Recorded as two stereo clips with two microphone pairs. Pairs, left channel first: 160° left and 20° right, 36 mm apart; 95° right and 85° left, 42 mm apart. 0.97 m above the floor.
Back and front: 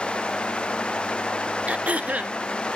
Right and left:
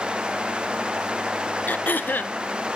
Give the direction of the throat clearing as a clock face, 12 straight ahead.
2 o'clock.